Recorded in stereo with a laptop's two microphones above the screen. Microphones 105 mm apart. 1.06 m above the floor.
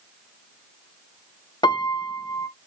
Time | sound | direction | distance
1.6 | a piano | 45° left (ahead or behind) | 0.5 m